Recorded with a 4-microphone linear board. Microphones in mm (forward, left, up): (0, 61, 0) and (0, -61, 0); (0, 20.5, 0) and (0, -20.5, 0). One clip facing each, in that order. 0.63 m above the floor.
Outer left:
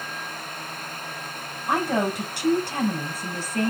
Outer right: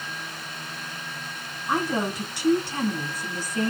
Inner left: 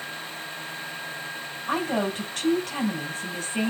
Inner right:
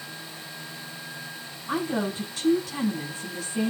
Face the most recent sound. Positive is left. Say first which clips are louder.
# outer left 2 dB, inner left 2 dB
turn(degrees=60)  # may be behind; listen again after turning